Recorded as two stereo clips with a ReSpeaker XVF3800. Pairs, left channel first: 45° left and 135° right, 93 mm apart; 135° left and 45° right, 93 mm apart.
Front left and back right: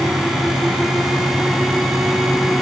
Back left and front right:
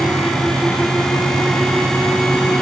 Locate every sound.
Only background noise.